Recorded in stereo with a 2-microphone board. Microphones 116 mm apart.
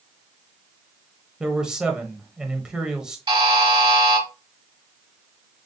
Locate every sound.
1.4 s a man speaking: 5° right (ahead or behind), 0.9 m
3.3 s a buzzer: 50° right (ahead or behind), 3.5 m